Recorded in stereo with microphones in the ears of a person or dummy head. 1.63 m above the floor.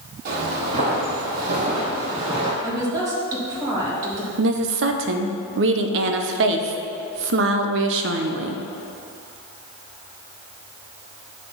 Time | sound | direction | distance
0.2 | footsteps | 55° right (ahead or behind) | 3.5 m
2.6 | a woman speaking | 25° right (ahead or behind) | 2.5 m
4.4 | a woman speaking | 70° right (ahead or behind) | 0.9 m